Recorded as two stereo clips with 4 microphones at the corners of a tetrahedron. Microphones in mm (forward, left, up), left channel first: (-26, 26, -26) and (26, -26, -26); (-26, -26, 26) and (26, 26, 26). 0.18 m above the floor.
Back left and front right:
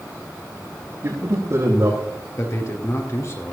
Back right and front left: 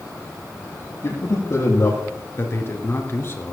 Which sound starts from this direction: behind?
A man speaking, at 2.4 s.